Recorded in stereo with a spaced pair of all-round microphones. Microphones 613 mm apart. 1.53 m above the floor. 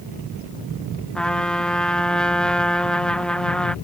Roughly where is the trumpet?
Centre.